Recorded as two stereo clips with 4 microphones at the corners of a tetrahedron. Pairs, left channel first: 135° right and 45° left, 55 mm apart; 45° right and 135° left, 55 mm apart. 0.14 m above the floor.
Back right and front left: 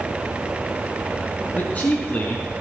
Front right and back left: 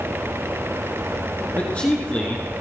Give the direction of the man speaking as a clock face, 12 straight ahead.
3 o'clock.